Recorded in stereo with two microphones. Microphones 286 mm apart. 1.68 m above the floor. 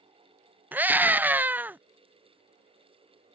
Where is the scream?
5° right (ahead or behind).